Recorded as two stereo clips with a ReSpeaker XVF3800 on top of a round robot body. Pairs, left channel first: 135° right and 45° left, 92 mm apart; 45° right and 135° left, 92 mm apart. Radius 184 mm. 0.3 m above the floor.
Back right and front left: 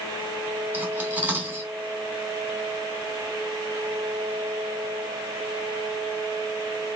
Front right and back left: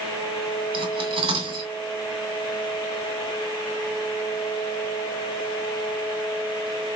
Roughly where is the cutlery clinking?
Behind left.